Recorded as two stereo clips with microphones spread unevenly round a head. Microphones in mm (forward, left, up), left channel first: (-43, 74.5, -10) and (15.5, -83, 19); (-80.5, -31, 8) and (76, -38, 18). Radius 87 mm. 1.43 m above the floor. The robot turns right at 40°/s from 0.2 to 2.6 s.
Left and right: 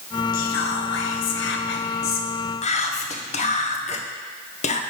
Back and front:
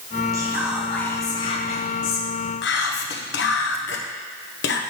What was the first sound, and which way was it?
Whispering, 70° left.